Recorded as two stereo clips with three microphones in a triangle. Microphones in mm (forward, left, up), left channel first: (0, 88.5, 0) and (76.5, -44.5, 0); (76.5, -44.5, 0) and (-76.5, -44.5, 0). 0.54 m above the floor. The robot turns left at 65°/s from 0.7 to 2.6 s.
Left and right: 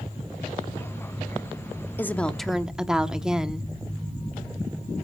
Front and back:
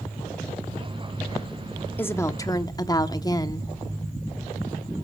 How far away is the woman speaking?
About 0.9 m.